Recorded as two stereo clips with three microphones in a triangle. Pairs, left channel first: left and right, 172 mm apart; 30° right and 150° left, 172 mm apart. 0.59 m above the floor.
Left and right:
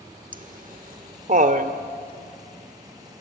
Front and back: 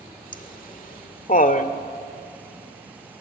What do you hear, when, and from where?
0.3 s laughter: 60° right, 1.7 m